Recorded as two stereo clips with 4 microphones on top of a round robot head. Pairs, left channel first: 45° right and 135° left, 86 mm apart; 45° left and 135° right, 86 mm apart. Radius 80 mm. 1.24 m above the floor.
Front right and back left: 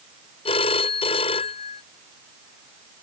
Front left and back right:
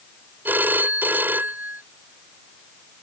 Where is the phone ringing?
65° right.